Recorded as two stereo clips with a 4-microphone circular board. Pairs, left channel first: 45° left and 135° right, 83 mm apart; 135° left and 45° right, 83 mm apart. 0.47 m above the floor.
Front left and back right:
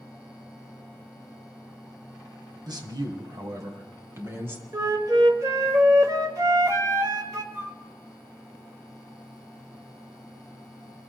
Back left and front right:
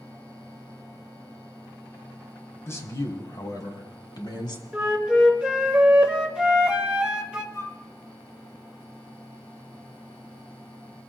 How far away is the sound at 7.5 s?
About 1.8 m.